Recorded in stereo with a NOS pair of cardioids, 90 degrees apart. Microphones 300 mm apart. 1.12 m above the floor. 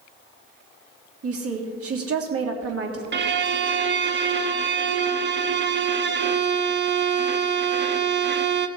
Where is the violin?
40° right, 1.0 m.